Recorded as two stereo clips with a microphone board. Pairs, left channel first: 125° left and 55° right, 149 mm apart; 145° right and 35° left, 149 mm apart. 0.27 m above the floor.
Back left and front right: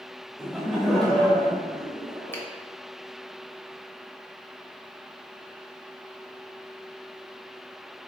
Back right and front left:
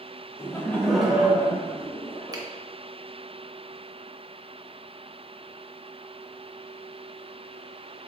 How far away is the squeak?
I don't hear a squeak.